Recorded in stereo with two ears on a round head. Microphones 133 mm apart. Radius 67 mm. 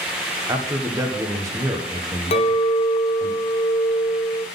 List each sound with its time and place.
0.5 s a man speaking: 20° right (ahead or behind), 1.2 m
2.3 s a clink: 40° left (ahead or behind), 0.6 m